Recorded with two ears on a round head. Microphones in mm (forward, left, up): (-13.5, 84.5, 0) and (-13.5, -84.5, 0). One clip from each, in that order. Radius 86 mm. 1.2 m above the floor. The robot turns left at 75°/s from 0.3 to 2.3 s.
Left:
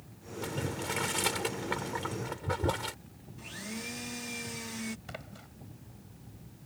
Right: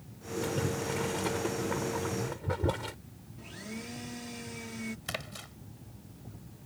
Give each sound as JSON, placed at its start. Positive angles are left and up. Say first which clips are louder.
{"t": 0.4, "sound": "boiling", "louder": "right 2 dB", "side_deg": 10}
{"t": 3.4, "sound": "a blender", "louder": "left 3 dB", "side_deg": 25}
{"t": 5.1, "sound": "a splash", "louder": "right 7 dB", "side_deg": -85}